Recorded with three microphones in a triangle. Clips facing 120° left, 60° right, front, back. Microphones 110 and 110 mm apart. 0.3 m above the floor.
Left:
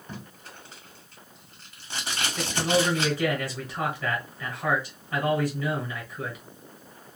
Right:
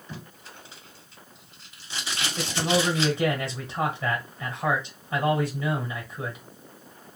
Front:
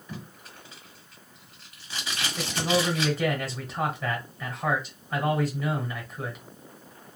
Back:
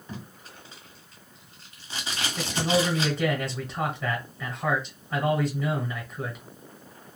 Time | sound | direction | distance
0.1 | tape being pulled | 125° left | 1.8 m
2.4 | a man speaking | 85° right | 1.2 m